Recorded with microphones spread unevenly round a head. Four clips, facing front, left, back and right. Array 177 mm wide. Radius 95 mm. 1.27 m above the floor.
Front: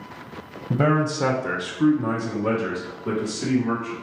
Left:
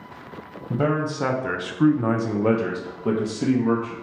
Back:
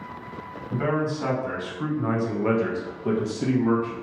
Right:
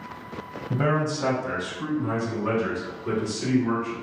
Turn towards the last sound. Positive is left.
turn(degrees=125)